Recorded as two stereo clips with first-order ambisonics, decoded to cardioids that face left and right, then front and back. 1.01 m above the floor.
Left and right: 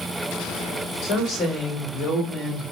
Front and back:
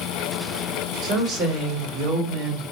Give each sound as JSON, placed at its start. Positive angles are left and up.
{"t": 1.0, "sound": "a woman speaking", "azimuth_deg": 130, "distance_m": 2.0}